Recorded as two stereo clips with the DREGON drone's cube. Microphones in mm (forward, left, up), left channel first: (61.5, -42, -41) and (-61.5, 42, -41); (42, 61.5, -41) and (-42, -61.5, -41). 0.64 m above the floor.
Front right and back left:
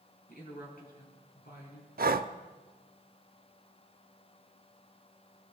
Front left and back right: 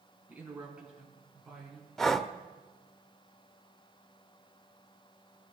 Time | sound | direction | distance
0.3 | a woman speaking | 45° right | 5.5 m
2.0 | breathing | 145° left | 0.6 m